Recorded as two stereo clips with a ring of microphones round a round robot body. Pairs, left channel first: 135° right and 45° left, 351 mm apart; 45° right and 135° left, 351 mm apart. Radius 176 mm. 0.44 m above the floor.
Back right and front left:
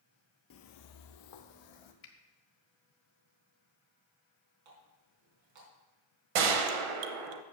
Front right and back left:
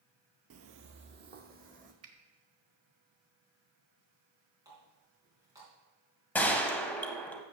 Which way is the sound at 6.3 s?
40° left.